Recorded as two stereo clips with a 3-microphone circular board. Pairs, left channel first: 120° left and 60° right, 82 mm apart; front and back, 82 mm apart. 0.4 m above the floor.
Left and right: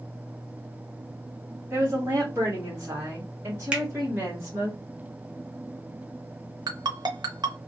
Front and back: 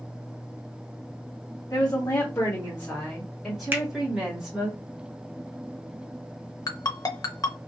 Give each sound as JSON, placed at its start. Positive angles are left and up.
{"t": 1.7, "sound": "a woman speaking", "azimuth_deg": -10, "distance_m": 1.6}
{"t": 3.7, "sound": "a finger snap", "azimuth_deg": -125, "distance_m": 0.7}
{"t": 6.7, "sound": "a ringtone", "azimuth_deg": -35, "distance_m": 0.6}